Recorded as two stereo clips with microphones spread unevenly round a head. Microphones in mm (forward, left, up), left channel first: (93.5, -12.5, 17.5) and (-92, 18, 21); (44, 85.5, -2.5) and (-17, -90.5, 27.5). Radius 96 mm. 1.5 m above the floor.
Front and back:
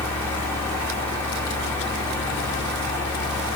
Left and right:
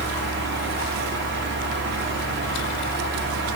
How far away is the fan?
About 1.1 m.